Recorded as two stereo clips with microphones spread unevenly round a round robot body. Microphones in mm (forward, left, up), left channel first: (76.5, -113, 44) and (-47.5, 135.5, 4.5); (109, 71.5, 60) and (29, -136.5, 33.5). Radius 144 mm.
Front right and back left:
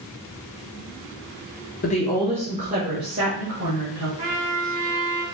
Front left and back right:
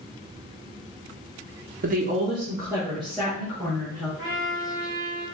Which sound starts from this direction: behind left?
A trumpet, at 4.2 s.